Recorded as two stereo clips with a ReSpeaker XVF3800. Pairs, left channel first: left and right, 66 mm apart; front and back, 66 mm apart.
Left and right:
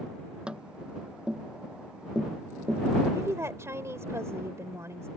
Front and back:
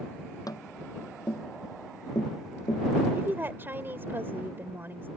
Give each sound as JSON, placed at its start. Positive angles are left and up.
{"t": 0.5, "sound": "tapping", "azimuth_deg": -15}
{"t": 3.1, "sound": "a woman speaking", "azimuth_deg": -130}